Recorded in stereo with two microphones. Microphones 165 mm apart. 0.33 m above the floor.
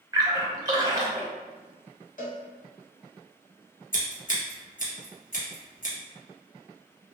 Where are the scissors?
65° left (ahead or behind), 1.2 m.